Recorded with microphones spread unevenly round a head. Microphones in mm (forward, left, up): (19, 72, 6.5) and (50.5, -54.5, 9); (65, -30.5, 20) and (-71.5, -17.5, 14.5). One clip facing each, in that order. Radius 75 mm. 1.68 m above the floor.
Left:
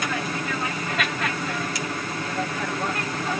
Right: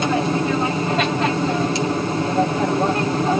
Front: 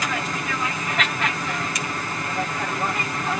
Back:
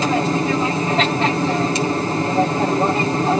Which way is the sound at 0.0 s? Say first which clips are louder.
Right 9 dB, back 10 dB; 135° right.